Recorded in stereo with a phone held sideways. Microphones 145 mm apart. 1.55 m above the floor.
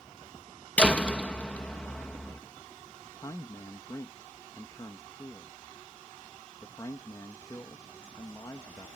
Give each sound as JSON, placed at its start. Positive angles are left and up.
{"t": 0.8, "sound": "a door slam", "side_deg": 10}
{"t": 3.0, "sound": "a man speaking", "side_deg": 25}